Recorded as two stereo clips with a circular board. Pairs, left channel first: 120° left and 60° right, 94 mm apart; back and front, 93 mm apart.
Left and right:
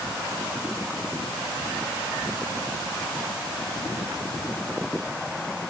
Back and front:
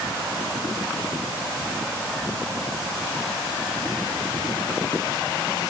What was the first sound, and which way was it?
Only background noise.